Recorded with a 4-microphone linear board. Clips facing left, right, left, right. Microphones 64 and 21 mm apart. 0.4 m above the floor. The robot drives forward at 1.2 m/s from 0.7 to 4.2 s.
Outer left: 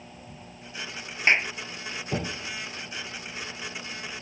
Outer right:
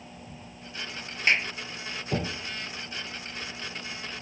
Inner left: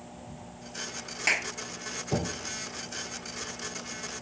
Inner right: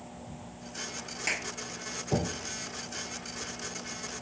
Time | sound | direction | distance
1.3 | a clap | 25° left (ahead or behind) | ?